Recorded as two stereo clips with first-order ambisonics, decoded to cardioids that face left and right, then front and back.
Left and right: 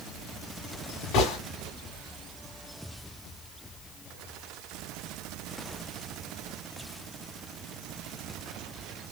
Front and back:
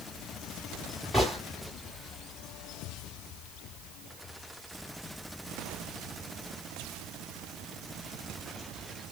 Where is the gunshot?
85° left, 2 m.